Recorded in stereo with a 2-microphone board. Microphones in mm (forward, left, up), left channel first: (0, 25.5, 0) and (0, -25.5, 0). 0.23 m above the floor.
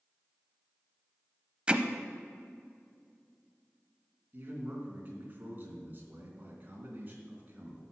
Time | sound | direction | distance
1.7 | hammering | 20° right (ahead or behind) | 0.8 m
4.3 | a man speaking | 35° right (ahead or behind) | 3 m